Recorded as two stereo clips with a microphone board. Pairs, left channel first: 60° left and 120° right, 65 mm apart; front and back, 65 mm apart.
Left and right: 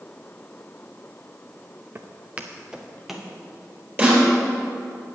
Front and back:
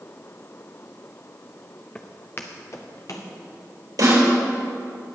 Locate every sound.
1.9 s footsteps: 70° right, 0.9 m; by 3.3 s 30° right, 1.8 m
4.0 s a snare drum: straight behind, 4 m